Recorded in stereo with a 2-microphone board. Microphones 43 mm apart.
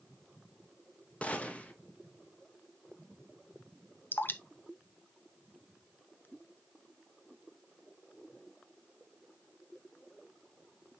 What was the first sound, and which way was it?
A gunshot, 30° left (ahead or behind).